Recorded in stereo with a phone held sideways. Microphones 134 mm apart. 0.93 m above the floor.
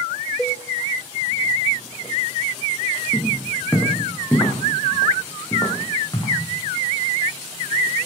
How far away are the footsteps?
About 4 m.